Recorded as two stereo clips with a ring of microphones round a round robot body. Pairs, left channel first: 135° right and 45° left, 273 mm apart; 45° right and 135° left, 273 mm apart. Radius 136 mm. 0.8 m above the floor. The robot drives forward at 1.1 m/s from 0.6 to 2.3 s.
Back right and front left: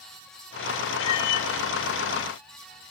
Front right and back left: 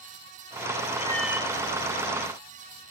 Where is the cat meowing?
110° right, 0.5 m; by 1.5 s 150° right, 0.9 m.